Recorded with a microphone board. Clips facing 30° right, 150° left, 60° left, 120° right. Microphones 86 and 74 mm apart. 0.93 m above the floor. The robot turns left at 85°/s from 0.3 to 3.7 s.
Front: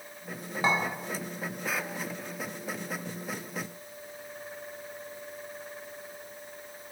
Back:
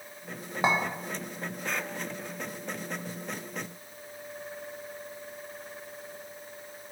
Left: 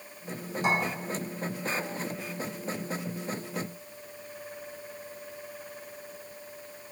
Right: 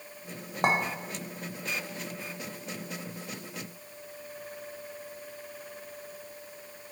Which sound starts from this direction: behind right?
A clink, at 0.6 s.